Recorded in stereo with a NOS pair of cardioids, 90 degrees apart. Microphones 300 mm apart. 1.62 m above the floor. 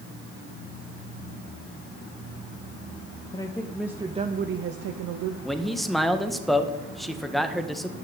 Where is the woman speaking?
15° left, 1.1 m; by 5.3 s 75° right, 1.0 m.